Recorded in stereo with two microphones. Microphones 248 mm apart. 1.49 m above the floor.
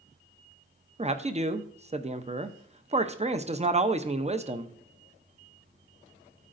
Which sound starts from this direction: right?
A man speaking, at 1.0 s.